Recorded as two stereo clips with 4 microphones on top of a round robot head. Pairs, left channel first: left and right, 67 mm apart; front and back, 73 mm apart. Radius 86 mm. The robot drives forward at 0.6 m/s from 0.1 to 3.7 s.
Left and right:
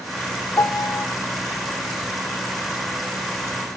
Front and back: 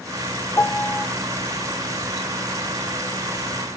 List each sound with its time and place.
0.6 s a piano: 55° left, 0.7 m; by 1.1 s 85° left, 0.6 m